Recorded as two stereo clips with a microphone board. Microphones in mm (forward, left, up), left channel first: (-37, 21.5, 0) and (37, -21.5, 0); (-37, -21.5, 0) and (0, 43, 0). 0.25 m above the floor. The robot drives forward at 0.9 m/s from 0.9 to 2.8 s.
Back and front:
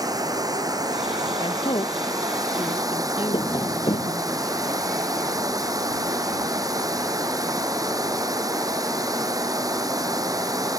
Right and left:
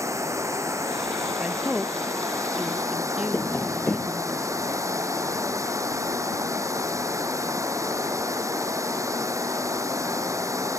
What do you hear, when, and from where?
0.0 s running water: 10° left; by 10.8 s 15° left
1.4 s a woman speaking: 130° left; by 4.3 s 140° left
3.3 s tapping: 175° left